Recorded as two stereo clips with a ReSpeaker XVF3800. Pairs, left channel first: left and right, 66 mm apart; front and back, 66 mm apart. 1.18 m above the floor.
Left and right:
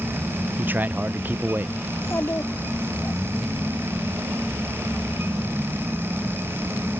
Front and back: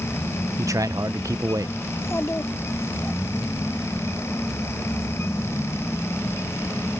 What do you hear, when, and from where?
0.6 s a man speaking: 150° right
1.9 s a child speaking: 50° left